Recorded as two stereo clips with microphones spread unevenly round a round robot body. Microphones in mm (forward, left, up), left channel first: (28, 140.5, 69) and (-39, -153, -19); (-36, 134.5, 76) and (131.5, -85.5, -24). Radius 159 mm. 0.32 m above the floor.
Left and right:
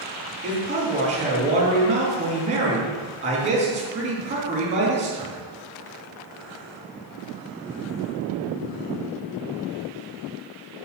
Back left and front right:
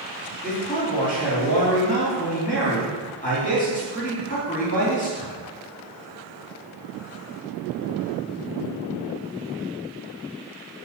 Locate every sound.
0.4 s a man speaking: 160° right, 3.5 m